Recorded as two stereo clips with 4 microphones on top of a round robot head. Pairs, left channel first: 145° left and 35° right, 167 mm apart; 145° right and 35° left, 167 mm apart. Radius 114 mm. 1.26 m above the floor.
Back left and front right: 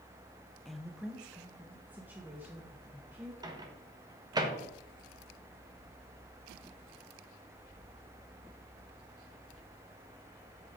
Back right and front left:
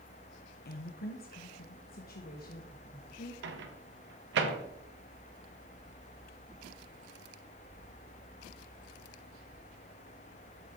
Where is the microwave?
35° left, 1.4 m.